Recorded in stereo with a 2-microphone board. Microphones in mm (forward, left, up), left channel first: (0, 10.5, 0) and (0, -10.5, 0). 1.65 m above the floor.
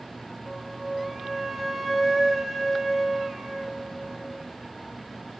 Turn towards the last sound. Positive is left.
turn(degrees=0)  # may be behind; listen again after turning